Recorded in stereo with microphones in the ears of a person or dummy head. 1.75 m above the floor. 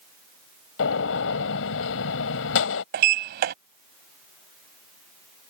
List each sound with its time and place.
0.8 s a gunshot: 75° left (ahead or behind)
2.9 s a sliding door: 55° right (ahead or behind)